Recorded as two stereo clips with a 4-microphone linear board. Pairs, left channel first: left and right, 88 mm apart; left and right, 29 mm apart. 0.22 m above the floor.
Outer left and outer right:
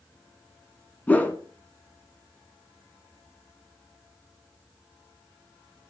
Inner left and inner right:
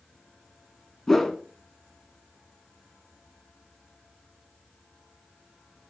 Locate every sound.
1.1 s a whoosh: 15° left (ahead or behind), 1.9 m